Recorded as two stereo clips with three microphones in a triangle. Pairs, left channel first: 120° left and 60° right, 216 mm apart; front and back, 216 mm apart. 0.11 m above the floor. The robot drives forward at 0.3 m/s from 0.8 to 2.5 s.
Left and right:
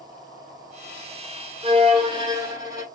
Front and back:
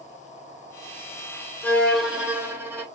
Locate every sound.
1.6 s a violin: 75° right, 0.8 m; by 2.9 s 110° right, 0.8 m